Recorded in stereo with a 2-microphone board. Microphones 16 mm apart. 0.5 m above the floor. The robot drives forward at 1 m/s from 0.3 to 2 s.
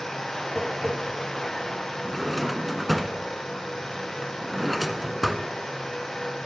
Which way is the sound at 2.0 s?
5° left (ahead or behind).